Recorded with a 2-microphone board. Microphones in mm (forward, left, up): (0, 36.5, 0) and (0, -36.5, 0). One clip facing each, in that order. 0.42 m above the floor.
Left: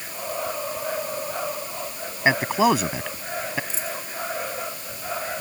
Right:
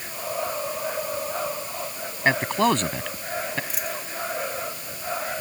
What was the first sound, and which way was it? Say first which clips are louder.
A man speaking: left 2 dB; 10° left (ahead or behind).